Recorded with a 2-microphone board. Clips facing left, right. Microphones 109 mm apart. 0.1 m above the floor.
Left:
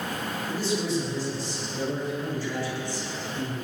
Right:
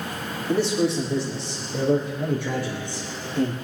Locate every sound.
0.5 s a man speaking: 65° right (ahead or behind), 4.5 m; by 3.5 s 55° right (ahead or behind), 3 m